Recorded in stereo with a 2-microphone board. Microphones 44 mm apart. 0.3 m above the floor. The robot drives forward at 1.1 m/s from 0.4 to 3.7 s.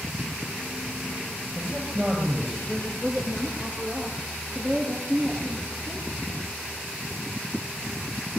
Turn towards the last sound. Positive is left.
turn(degrees=15)  # may be behind; listen again after turning